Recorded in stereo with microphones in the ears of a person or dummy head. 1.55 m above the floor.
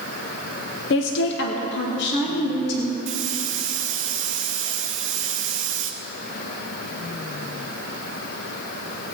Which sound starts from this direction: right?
A hiss, at 3.1 s.